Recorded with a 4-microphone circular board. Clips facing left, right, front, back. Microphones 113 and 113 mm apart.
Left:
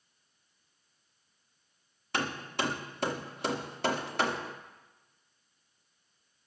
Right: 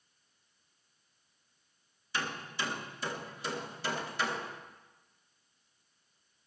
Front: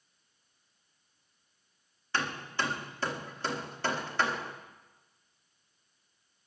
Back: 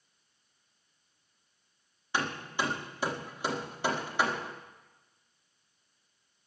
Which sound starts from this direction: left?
Hammering, at 2.1 s.